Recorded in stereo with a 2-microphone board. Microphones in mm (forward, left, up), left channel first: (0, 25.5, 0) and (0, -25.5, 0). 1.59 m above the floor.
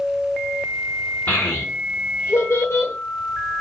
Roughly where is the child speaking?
Left.